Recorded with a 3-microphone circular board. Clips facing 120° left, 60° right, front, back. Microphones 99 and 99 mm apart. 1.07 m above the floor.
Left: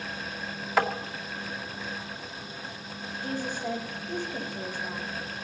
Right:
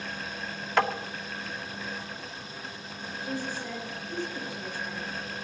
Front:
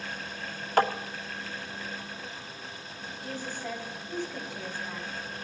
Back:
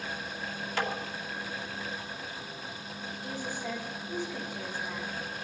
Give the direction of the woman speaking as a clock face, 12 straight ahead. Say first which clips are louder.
Left 2 dB, even; 9 o'clock.